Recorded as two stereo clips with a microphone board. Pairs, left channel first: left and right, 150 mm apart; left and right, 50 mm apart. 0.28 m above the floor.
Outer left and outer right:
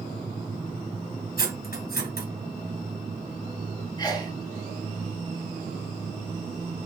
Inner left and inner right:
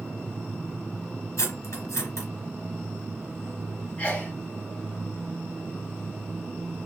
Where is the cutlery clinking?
75° left (ahead or behind), 2.0 m.